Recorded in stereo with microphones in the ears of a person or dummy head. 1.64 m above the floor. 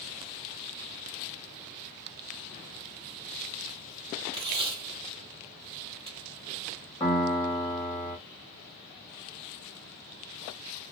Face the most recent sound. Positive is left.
turn(degrees=20)  # may be behind; listen again after turning